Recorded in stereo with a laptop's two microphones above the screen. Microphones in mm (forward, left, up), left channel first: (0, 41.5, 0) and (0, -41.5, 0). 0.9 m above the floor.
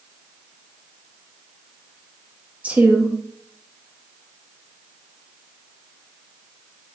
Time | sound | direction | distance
2.6 | a woman speaking | 15° right (ahead or behind) | 1.1 m